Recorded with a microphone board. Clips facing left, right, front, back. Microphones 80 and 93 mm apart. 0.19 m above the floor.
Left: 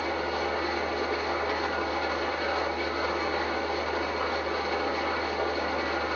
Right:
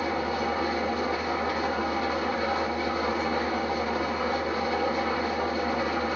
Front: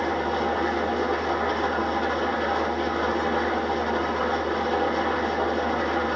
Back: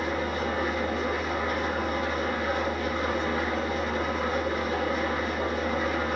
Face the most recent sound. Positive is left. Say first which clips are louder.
# right 2 dB, front 4 dB
turn(degrees=-25)